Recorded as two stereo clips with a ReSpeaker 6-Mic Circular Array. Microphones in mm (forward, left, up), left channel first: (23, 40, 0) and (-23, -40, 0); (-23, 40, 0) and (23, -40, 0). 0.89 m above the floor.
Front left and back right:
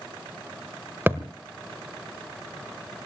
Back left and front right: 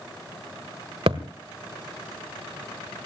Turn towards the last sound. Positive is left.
turn(degrees=-55)